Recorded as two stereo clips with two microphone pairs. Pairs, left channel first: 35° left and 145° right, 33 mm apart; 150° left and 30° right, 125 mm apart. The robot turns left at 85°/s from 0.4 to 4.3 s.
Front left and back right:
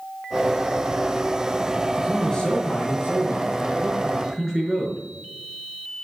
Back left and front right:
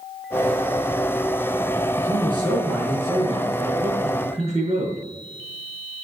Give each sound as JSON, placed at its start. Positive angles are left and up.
{"t": 2.0, "sound": "a man speaking", "azimuth_deg": 130, "distance_m": 5.5}